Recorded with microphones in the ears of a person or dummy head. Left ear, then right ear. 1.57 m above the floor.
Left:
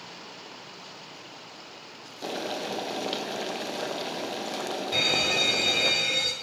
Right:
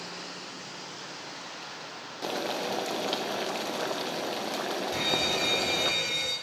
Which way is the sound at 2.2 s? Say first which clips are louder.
Right 1 dB; 15° right (ahead or behind).